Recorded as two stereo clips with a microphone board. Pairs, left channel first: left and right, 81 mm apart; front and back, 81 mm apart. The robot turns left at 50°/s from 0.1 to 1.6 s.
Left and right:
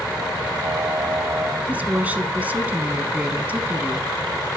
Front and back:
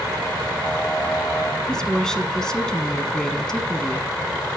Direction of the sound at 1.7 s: 65° right.